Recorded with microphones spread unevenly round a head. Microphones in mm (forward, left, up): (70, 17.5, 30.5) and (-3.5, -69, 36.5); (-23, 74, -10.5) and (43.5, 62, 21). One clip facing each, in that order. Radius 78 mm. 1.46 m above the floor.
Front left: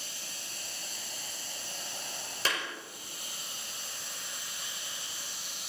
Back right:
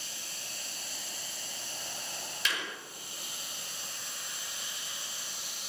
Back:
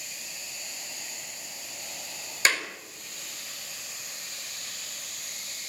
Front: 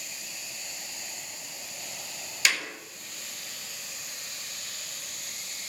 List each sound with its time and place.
2.5 s a clap: 115° left, 5 m